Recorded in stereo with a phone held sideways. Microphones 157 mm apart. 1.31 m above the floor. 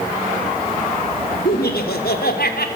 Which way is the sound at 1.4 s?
85° left.